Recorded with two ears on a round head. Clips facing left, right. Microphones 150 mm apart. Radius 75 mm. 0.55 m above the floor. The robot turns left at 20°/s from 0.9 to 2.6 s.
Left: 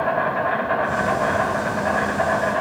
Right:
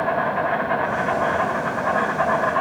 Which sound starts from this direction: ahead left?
An insect, at 0.0 s.